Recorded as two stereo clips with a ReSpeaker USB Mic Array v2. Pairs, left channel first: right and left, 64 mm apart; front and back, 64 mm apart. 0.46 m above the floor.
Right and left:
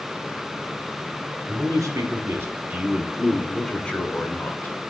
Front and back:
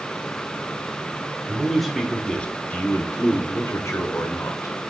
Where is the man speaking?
95° left, 1.4 m; by 4.8 s 35° right, 1.8 m.